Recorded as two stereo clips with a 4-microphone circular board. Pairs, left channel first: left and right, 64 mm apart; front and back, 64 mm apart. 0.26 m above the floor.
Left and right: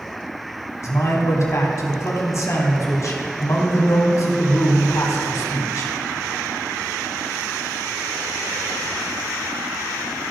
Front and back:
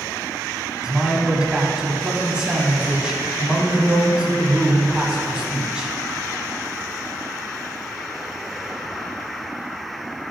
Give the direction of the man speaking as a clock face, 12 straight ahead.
9 o'clock.